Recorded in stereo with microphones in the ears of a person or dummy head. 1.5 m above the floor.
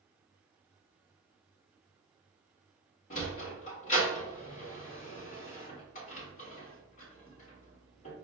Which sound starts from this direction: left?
A sliding door, at 3.1 s.